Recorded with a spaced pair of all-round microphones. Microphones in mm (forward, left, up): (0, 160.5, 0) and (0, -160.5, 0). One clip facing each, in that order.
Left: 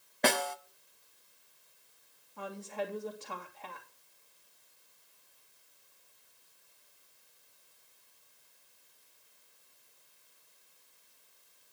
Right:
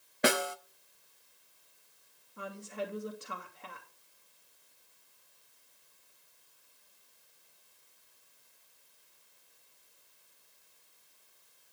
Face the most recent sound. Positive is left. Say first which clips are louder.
# left 1 dB
turn(degrees=-20)  # may be behind; listen again after turning